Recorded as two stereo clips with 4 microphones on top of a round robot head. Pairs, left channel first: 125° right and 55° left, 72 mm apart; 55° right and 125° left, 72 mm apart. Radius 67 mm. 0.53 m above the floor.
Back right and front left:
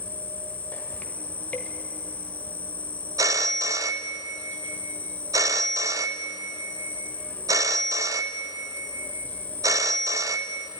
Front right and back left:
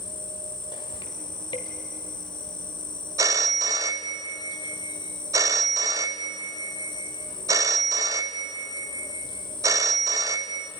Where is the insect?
55° right, 1.5 m.